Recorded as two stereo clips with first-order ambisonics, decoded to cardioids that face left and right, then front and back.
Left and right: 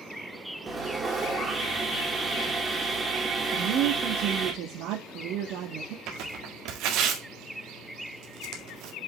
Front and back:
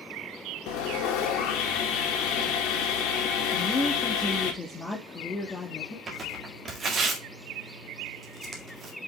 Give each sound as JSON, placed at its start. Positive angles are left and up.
{"t": 0.7, "sound": "sawing", "azimuth_deg": -15, "distance_m": 2.0}
{"t": 3.5, "sound": "a woman speaking", "azimuth_deg": -75, "distance_m": 1.3}
{"t": 6.1, "sound": "tearing paper", "azimuth_deg": -115, "distance_m": 1.9}